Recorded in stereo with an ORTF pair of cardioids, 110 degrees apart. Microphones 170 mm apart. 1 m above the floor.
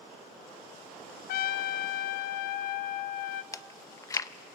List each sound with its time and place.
1.3 s a trumpet: 65° left, 0.7 m
3.5 s chewing: 20° left, 0.5 m